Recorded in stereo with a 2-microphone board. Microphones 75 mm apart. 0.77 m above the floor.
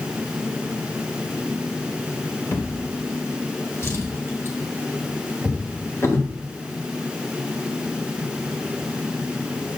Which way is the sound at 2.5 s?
35° left (ahead or behind).